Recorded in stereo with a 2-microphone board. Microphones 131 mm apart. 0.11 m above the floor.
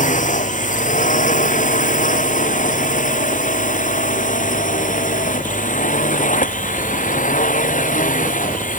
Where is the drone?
75° left (ahead or behind); by 8.8 s 80° left.